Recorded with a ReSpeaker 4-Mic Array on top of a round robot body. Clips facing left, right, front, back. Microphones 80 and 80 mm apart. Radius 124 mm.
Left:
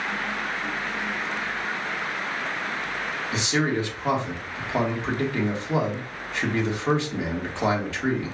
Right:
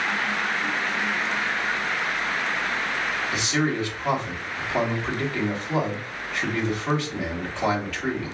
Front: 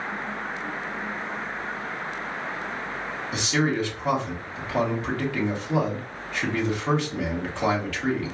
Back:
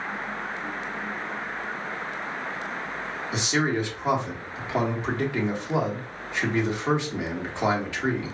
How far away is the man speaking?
About 1.6 m.